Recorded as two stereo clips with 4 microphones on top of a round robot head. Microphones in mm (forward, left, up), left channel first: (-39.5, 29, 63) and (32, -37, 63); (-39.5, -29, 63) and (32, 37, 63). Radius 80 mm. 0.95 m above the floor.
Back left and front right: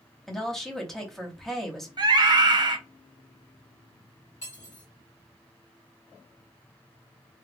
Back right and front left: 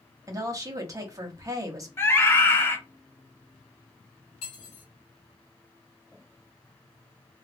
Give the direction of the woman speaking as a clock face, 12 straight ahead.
10 o'clock.